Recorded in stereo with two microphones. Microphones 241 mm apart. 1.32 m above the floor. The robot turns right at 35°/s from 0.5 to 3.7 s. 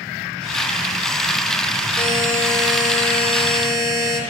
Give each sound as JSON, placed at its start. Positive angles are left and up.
{"t": 2.0, "sound": "a buzzer", "azimuth_deg": -155, "distance_m": 6.5}